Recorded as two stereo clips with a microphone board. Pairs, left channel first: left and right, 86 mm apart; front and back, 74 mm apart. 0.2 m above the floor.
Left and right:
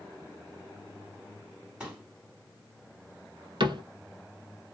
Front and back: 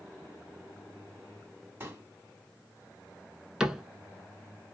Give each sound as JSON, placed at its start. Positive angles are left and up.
{"t": 1.8, "sound": "a pop", "azimuth_deg": -155, "distance_m": 1.5}
{"t": 3.6, "sound": "a cupboard door", "azimuth_deg": -95, "distance_m": 0.7}